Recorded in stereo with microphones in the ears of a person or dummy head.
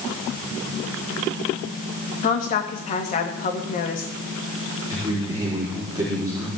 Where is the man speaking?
20° right (ahead or behind), 3.5 m.